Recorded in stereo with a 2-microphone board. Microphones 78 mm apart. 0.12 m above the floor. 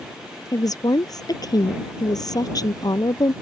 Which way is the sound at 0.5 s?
55° left (ahead or behind).